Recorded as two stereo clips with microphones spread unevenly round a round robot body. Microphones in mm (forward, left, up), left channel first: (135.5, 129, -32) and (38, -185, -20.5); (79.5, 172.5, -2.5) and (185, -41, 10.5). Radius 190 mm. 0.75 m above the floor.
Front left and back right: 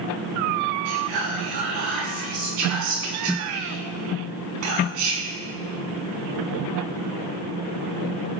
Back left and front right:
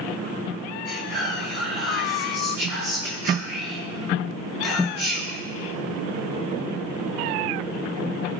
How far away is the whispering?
About 7.5 m.